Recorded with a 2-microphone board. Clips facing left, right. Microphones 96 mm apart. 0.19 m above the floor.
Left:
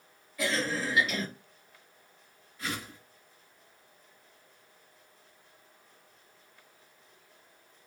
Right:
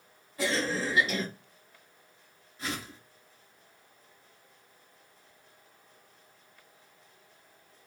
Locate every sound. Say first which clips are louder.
0.4 s a cough: right 1 dB; 25° right (ahead or behind), 1.9 m
2.6 s a whoosh: even; 25° right (ahead or behind), 1.8 m